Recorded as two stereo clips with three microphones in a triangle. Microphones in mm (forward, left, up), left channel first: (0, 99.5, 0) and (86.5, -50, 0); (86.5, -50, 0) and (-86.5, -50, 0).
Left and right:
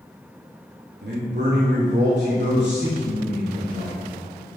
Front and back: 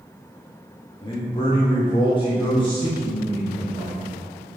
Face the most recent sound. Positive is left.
turn(degrees=-60)